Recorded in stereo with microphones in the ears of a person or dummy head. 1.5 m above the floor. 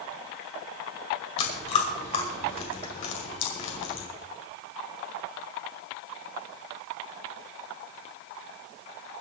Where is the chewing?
40° left (ahead or behind), 2.5 m.